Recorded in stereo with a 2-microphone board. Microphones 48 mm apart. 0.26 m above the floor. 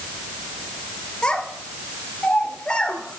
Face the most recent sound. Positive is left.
turn(degrees=20)  # may be behind; listen again after turning